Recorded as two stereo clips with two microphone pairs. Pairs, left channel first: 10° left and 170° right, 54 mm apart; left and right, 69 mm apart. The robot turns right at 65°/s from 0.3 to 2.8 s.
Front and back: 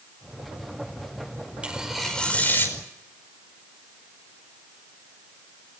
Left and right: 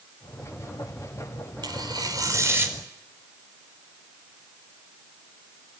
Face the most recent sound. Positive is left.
turn(degrees=-25)